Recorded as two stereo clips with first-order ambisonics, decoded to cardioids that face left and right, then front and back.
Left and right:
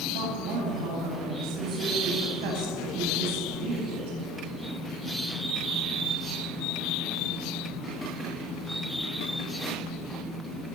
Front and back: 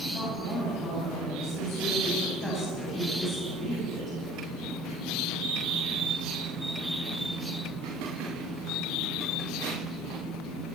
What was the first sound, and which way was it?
A woman speaking, 85° right.